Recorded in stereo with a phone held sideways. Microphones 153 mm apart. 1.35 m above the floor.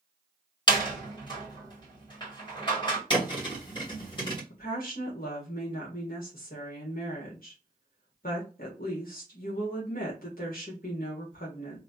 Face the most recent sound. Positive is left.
turn(degrees=70)  # may be behind; listen again after turning